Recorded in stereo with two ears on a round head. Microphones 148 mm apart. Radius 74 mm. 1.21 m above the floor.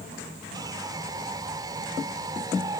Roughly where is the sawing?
Right.